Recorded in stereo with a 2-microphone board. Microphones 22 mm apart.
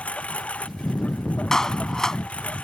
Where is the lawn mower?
80° left.